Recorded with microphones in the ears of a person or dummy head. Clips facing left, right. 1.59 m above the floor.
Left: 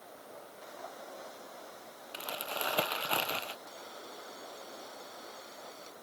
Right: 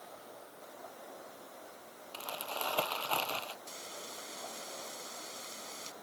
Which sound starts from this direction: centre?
Crumpling, at 2.1 s.